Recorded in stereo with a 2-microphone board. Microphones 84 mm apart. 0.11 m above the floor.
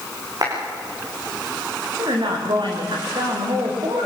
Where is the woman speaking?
70° right (ahead or behind), 7 m.